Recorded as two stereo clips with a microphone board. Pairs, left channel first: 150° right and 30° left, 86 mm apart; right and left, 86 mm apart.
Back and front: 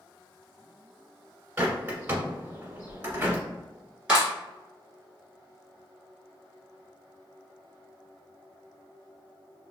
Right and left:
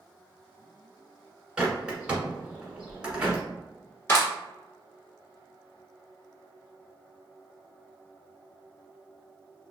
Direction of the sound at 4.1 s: 45° right.